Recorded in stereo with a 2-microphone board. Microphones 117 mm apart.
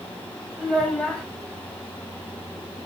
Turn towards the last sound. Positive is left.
turn(degrees=5)  # may be behind; listen again after turning